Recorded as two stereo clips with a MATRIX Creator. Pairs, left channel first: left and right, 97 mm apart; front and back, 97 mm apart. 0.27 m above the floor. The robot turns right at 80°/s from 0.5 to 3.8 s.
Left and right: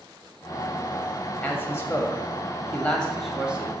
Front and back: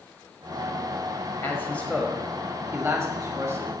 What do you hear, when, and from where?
1.4 s a man speaking: 35° left, 1.2 m; by 3.7 s 145° right, 1.2 m